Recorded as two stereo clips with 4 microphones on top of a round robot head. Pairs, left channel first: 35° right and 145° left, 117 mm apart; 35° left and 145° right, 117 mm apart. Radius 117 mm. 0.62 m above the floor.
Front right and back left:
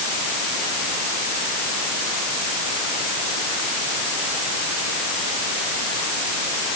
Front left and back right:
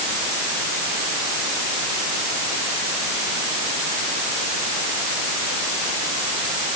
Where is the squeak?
I don't hear a squeak.